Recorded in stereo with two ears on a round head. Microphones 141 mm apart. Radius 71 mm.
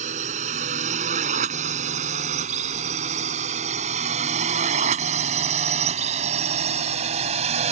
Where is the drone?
50° right (ahead or behind); by 7.7 s 40° right (ahead or behind).